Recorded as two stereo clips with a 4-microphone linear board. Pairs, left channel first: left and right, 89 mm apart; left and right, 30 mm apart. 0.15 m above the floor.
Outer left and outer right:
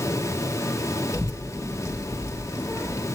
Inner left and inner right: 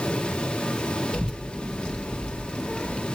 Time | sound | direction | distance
1.1 | a child speaking | 30° left (ahead or behind) | 1.6 m